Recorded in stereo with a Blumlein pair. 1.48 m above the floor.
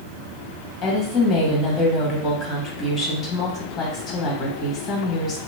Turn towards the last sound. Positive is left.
turn(degrees=25)